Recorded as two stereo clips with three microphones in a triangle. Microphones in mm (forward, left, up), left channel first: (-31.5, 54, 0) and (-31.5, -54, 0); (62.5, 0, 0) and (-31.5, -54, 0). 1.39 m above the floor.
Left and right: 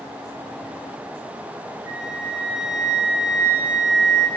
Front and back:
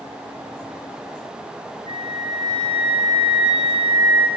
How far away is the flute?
About 0.8 m.